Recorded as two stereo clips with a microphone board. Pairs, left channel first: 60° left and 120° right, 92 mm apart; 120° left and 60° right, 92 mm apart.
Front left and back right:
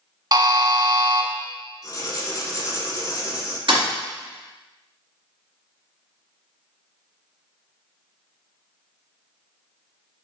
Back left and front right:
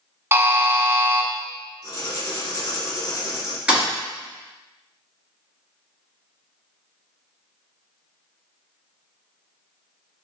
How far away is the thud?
About 1.6 m.